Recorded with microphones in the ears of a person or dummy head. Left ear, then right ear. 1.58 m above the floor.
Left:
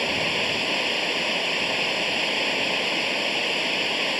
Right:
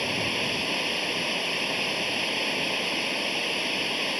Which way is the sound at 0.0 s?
20° left (ahead or behind).